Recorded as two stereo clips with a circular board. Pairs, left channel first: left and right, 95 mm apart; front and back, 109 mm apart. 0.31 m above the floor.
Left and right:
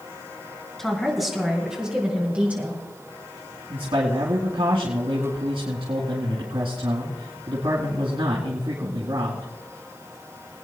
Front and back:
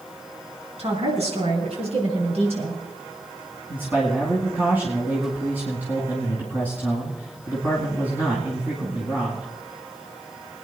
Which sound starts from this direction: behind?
A woman speaking, at 0.8 s.